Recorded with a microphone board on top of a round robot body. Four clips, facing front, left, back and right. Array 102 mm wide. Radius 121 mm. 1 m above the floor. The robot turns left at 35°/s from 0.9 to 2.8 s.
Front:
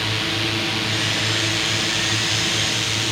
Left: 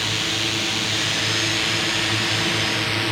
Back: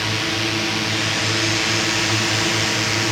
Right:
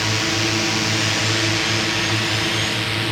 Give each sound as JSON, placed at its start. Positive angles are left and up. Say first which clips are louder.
{"t": 0.0, "sound": "a drone", "louder": "right 5 dB, back 2 dB", "azimuth_deg": -115}